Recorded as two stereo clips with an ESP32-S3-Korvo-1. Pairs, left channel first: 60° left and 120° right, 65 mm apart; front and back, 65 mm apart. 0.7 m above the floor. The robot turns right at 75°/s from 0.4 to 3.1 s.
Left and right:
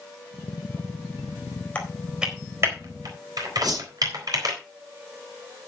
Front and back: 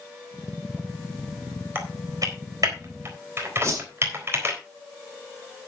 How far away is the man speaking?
No man speaking in this recording.